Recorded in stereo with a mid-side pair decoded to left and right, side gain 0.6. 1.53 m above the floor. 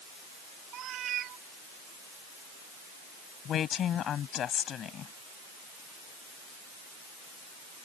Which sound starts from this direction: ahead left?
A woman speaking, at 3.5 s.